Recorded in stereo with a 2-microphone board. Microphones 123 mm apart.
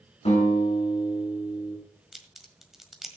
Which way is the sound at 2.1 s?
5° right (ahead or behind).